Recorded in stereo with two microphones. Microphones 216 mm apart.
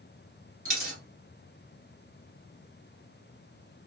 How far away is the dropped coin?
About 1.5 m.